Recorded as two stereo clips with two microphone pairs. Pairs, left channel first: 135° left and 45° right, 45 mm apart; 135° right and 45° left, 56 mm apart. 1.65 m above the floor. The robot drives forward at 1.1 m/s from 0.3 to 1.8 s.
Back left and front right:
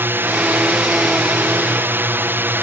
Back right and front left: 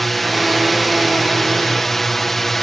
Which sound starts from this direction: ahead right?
A drone, at 0.0 s.